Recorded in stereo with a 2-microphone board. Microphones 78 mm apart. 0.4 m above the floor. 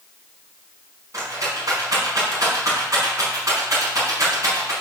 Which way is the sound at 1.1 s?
45° right (ahead or behind).